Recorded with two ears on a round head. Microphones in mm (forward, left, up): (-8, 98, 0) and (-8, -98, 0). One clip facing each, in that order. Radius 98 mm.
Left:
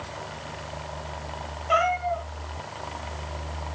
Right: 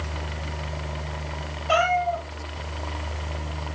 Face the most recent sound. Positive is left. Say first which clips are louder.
# right 3 dB
turn(degrees=-65)  # may be behind; listen again after turning